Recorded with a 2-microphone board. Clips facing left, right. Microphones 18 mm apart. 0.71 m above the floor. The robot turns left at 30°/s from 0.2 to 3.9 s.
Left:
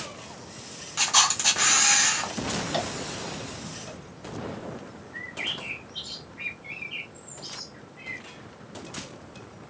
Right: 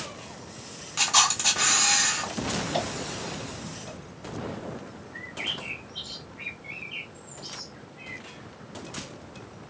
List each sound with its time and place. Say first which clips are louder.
1.0 s a camera shutter: even; 170° right, 1.8 m; by 2.3 s 150° left, 1.8 m
2.7 s tapping: even; 50° left (ahead or behind), 1.6 m; by 2.9 s 55° left (ahead or behind), 1.6 m
5.1 s a bird: left 1 dB; 20° left (ahead or behind), 1.2 m